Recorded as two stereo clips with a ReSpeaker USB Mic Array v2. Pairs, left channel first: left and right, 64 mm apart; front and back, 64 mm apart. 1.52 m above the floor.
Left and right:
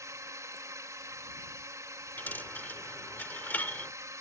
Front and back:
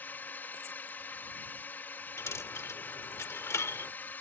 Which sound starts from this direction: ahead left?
A dropped coin, at 2.2 s.